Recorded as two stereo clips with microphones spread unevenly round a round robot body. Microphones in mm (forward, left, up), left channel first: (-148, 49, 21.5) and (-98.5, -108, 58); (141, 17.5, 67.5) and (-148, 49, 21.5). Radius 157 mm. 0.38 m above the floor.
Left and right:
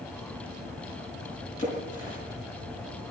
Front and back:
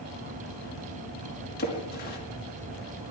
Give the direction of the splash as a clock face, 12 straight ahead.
10 o'clock.